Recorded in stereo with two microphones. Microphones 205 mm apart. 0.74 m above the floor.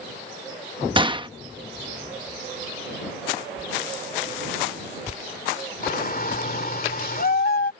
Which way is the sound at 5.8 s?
45° left (ahead or behind).